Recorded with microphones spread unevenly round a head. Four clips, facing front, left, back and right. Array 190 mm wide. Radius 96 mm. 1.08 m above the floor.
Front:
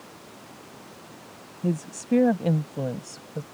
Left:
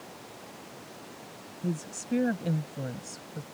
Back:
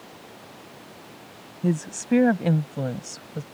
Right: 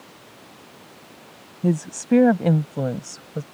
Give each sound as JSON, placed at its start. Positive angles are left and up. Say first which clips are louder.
{"t": 1.6, "sound": "a woman speaking", "louder": "right 11 dB, back 2 dB", "azimuth_deg": -80}